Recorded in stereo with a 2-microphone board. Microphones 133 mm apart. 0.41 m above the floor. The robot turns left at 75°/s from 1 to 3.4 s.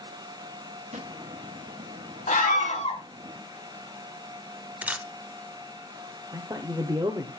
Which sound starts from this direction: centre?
A camera shutter, at 4.8 s.